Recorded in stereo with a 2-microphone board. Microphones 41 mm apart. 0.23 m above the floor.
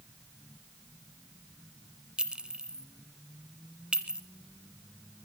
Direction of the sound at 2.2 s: 25° right (ahead or behind).